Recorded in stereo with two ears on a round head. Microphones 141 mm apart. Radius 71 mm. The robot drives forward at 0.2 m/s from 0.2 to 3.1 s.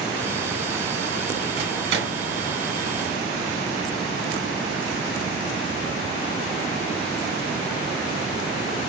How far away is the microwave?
About 1.6 m.